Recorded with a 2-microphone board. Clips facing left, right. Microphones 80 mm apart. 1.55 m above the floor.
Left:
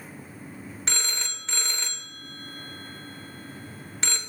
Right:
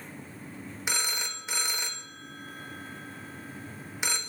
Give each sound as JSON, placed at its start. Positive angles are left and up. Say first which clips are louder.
{"t": 0.9, "sound": "a phone ringing", "louder": "right 1 dB", "side_deg": -10, "distance_m": 0.5}